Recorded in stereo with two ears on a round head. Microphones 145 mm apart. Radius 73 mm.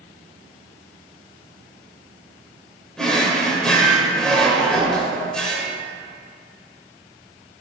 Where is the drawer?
5° left (ahead or behind), 1.4 m.